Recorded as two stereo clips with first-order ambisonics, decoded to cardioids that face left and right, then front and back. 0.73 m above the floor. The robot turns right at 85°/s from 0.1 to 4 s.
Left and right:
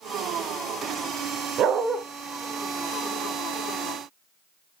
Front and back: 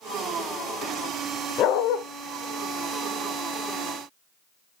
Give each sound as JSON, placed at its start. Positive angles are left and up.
{"t": 1.6, "sound": "a dog barking", "azimuth_deg": -45, "distance_m": 1.0}